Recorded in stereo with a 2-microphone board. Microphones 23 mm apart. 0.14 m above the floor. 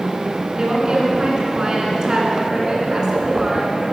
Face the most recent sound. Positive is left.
turn(degrees=-30)  # may be behind; listen again after turning